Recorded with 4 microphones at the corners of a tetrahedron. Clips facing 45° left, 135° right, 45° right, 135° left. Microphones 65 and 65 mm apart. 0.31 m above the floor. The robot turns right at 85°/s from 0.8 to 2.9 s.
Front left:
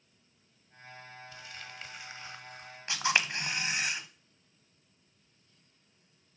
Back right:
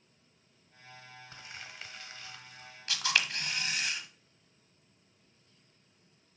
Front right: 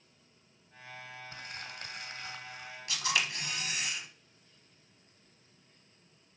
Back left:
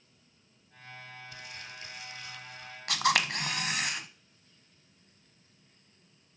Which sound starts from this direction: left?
A camera shutter, at 2.9 s.